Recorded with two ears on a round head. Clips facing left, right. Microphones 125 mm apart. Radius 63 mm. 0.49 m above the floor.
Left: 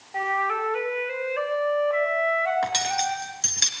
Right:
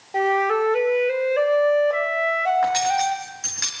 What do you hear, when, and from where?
0.1 s a flute: 45° right (ahead or behind), 2 m
2.6 s cutlery clinking: 30° left (ahead or behind), 4 m